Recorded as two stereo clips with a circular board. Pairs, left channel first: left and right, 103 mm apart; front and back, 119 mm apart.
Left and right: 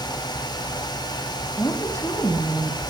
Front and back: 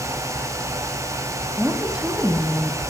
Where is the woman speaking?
110° left, 1.6 m.